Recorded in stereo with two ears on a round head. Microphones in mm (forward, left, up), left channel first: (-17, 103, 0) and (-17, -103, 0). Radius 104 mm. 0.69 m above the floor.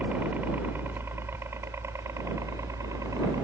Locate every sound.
0.0 s a helicopter: 10° right (ahead or behind); by 3.4 s 15° right (ahead or behind)